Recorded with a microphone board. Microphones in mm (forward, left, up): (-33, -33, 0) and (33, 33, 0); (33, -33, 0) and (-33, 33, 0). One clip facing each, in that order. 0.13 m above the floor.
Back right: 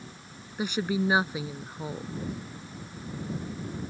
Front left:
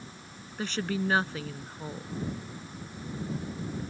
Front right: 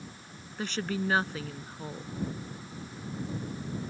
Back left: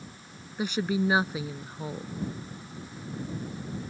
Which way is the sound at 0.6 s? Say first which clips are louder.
Back right 3 dB, back left 5 dB; straight behind.